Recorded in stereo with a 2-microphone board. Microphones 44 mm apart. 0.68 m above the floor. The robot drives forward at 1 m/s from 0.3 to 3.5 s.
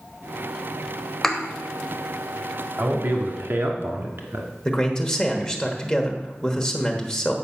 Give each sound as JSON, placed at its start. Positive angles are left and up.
{"t": 1.2, "sound": "a thud", "side_deg": 10, "distance_m": 1.0}
{"t": 2.8, "sound": "a man speaking", "side_deg": -50, "distance_m": 1.6}
{"t": 4.7, "sound": "a man speaking", "side_deg": 20, "distance_m": 1.2}